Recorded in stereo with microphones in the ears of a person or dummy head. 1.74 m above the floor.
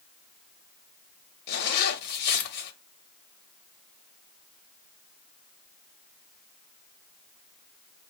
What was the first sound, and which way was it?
A zipper, 55° left (ahead or behind).